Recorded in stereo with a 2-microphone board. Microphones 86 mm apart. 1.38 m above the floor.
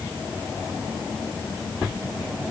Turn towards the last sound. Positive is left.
No sound to turn to.